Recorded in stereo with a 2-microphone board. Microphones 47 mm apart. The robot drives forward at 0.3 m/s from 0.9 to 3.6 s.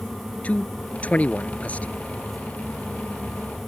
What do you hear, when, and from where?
0.4 s a man speaking: 30° left (ahead or behind)